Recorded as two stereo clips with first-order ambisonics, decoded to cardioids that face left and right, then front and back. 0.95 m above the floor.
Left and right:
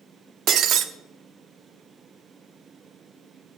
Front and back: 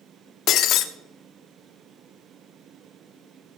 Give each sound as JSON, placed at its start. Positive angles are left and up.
{"t": 0.5, "sound": "breaking glass", "azimuth_deg": -45, "distance_m": 0.8}